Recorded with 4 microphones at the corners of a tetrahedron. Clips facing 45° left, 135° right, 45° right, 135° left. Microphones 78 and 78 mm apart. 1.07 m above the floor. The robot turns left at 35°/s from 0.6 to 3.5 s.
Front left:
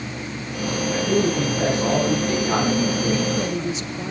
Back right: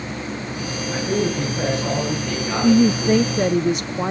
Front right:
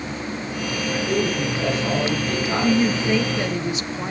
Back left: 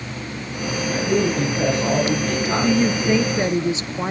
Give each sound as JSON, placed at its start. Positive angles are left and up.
{"t": 0.9, "sound": "a man speaking", "azimuth_deg": 115, "distance_m": 9.0}
{"t": 2.6, "sound": "a woman speaking", "azimuth_deg": -135, "distance_m": 0.6}